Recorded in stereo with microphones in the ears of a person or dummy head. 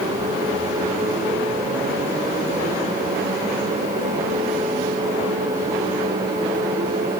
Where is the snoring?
No snoring in this recording.